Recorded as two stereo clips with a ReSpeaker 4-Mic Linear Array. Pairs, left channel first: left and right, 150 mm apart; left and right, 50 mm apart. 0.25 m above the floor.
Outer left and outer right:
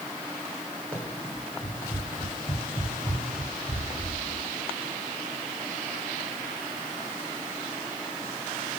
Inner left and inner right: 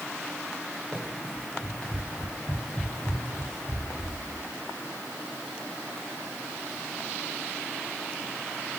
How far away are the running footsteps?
About 3.5 m.